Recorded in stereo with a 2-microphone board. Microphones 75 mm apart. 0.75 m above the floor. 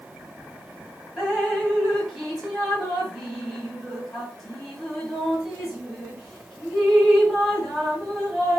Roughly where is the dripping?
Centre.